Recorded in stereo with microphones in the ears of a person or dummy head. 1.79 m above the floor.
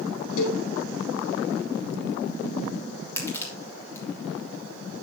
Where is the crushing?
20° left (ahead or behind), 3 m.